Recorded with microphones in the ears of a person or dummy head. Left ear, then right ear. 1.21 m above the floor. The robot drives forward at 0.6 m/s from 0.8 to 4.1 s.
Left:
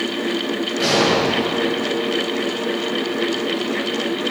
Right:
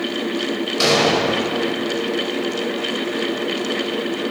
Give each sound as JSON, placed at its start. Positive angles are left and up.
{"t": 0.8, "sound": "an explosion", "side_deg": -45, "distance_m": 3.0}